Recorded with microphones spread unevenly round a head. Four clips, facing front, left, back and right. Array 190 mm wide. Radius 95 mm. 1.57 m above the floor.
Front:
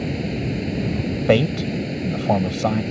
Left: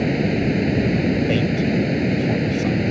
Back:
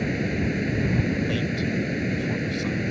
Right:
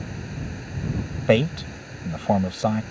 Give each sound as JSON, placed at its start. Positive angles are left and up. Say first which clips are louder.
{"t": 0.0, "sound": "running water", "louder": "left 16 dB, even", "azimuth_deg": 90}
{"t": 1.3, "sound": "a man speaking", "louder": "left 1 dB, front 8 dB", "azimuth_deg": -25}